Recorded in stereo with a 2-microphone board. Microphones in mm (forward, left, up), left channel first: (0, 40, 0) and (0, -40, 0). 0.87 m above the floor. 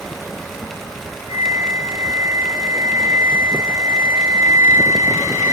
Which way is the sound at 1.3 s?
50° right (ahead or behind).